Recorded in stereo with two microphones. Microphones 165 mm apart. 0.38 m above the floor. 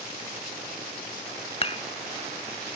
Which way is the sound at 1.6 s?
35° left (ahead or behind).